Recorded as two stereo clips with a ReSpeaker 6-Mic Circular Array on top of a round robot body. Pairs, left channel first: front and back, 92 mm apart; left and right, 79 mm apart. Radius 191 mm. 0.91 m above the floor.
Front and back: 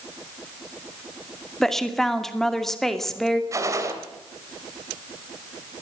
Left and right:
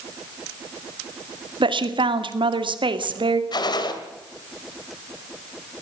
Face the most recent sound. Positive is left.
turn(degrees=120)